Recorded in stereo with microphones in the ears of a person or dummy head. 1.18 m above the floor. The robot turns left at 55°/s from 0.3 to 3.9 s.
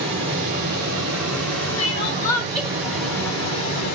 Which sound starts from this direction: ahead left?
Crying, at 1.8 s.